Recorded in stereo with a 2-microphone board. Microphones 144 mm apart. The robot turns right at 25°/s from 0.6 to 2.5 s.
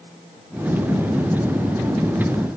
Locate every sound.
Only background noise.